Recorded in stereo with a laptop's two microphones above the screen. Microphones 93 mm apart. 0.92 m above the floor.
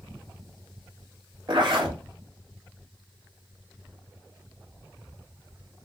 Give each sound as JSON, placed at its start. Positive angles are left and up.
{"t": 1.5, "sound": "a zipper", "side_deg": -65, "distance_m": 2.0}